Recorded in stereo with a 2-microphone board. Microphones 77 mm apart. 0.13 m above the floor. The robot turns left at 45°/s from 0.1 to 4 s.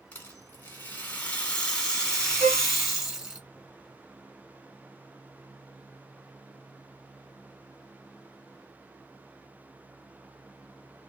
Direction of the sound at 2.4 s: 35° left (ahead or behind).